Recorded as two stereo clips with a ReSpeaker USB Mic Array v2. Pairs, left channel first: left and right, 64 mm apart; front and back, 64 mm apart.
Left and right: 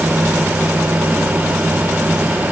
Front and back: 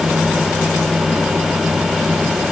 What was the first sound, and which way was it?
Only background noise.